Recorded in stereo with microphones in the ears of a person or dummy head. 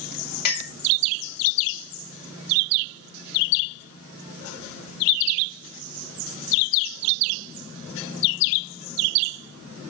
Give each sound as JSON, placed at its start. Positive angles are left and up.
{"t": 0.5, "sound": "a clink", "side_deg": 55, "distance_m": 2.5}